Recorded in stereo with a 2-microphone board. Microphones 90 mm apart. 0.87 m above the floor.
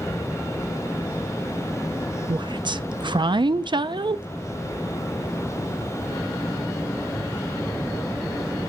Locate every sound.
2.3 s a woman speaking: 60° right (ahead or behind), 0.5 m